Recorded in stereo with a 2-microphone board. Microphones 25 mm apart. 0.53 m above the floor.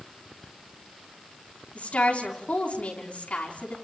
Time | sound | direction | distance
1.8 | a woman speaking | 60° left (ahead or behind) | 5.5 m